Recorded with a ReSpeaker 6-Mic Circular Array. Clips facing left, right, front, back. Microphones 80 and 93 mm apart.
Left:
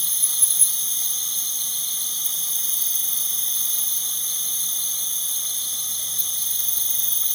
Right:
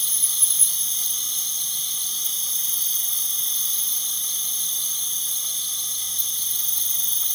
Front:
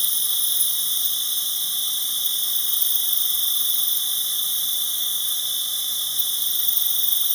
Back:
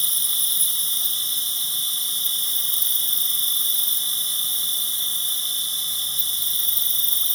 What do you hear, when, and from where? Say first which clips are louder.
0.0 s an insect: even, even; 60° left, 1.4 m